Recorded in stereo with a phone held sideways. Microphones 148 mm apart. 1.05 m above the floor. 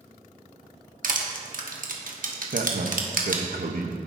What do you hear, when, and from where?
1.0 s crushing: 65° right (ahead or behind), 1.2 m
2.5 s a man speaking: 75° right (ahead or behind), 0.9 m